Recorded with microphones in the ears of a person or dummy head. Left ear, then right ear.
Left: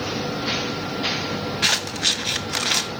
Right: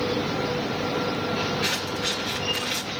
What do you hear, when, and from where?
1.6 s scissors: 30° left (ahead or behind), 0.8 m